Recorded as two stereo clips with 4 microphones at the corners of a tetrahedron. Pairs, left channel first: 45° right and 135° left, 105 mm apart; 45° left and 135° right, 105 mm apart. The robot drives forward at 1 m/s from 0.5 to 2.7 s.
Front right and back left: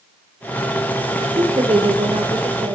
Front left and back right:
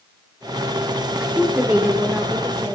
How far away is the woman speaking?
About 2.5 m.